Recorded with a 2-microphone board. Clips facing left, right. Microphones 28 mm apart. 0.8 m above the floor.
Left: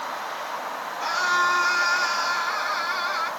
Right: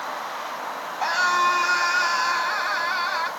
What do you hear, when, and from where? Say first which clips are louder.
1.0 s a scream: right 2 dB; 85° right, 5 m